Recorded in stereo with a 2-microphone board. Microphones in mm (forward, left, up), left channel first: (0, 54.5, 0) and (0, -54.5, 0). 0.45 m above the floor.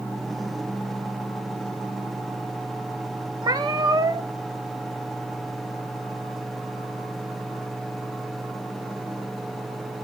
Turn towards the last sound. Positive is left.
turn(degrees=-40)  # may be behind; listen again after turning